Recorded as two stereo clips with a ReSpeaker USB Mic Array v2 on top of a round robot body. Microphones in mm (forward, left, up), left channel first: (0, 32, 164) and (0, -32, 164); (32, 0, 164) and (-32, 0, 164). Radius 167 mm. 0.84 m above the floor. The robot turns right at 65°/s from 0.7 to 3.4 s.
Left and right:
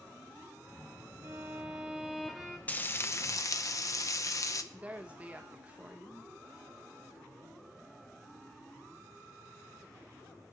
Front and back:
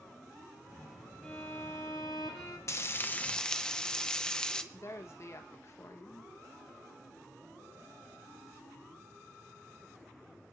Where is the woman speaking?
30° right, 1.3 m.